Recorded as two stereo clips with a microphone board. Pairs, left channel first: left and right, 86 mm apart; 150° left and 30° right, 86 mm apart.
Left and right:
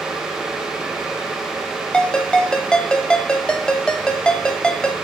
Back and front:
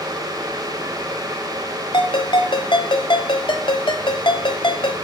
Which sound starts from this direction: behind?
A ringtone, at 1.9 s.